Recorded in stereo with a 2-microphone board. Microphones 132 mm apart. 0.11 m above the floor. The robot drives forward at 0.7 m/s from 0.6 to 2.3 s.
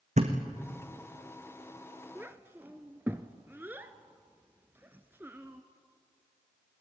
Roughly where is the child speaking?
Centre.